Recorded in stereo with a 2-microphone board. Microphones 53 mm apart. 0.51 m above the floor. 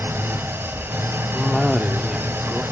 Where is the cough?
5° right (ahead or behind), 0.8 m.